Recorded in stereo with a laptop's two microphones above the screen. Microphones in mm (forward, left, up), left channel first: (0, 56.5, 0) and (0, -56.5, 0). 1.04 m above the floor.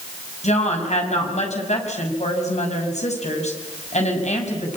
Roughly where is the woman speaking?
Left.